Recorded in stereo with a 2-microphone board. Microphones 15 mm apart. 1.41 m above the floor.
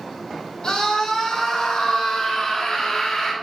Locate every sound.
0.6 s a scream: 75° left (ahead or behind), 3.5 m; by 3.3 s 50° left (ahead or behind), 3 m